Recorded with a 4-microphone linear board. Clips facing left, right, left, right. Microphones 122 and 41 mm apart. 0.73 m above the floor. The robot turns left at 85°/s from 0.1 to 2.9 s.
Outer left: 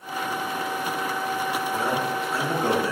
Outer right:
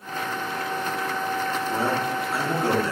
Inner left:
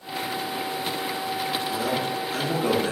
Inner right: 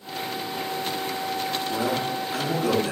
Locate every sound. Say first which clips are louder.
1.7 s a man speaking: outer right 2 dB, even; 125° right, 0.7 m; by 2.9 s 130° left, 0.7 m